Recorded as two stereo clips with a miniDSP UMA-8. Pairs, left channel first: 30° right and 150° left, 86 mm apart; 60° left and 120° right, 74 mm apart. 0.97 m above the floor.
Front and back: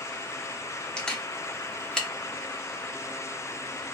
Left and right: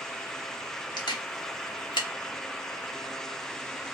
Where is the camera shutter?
50° left, 0.8 m.